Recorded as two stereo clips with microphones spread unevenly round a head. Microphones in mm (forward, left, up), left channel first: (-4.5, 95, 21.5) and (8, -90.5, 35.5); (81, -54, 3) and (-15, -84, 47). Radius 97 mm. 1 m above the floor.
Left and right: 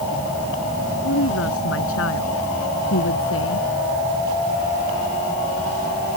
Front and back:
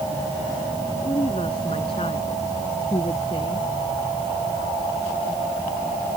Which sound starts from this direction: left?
A woman speaking, at 1.0 s.